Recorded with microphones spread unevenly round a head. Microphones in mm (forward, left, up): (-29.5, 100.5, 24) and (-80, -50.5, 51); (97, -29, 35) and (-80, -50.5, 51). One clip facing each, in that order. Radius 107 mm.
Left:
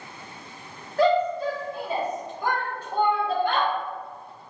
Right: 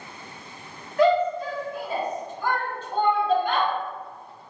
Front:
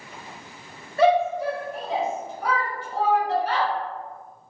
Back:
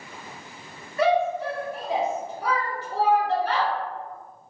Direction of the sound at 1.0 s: 50° left.